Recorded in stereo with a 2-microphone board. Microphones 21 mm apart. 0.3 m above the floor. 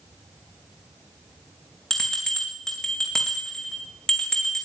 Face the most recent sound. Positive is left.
turn(degrees=35)  # may be behind; listen again after turning